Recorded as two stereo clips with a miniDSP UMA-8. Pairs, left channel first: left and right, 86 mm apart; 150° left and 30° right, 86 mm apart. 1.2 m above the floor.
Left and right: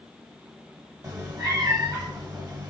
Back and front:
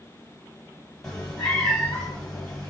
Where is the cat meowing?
130° right, 1.7 m.